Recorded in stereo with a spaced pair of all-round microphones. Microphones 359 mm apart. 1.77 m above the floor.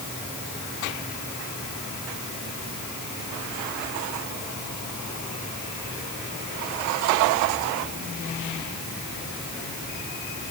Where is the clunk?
No clunk in this recording.